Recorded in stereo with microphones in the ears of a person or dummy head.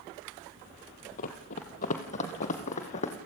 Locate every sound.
1.2 s running footsteps: 40° left (ahead or behind), 1.7 m